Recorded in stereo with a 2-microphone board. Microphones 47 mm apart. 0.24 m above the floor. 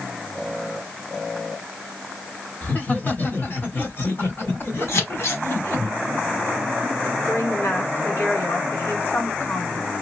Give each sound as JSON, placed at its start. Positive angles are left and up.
{"t": 2.6, "sound": "laughter", "side_deg": 35, "distance_m": 2.0}
{"t": 4.9, "sound": "scissors", "side_deg": 70, "distance_m": 2.0}
{"t": 7.3, "sound": "a woman speaking", "side_deg": 55, "distance_m": 2.5}